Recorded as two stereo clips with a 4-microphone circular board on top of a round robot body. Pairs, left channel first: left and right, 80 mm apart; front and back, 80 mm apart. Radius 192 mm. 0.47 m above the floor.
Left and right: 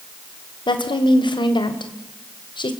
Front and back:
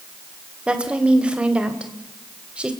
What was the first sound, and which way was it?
A woman speaking, 105° left.